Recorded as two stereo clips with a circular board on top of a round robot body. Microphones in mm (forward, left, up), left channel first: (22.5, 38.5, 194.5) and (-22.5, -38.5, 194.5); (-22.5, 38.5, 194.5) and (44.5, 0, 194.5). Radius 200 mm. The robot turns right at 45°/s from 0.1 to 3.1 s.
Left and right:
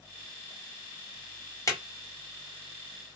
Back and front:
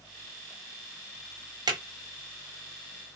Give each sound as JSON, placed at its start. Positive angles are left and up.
{"t": 1.7, "sound": "a drawer", "azimuth_deg": 5, "distance_m": 1.4}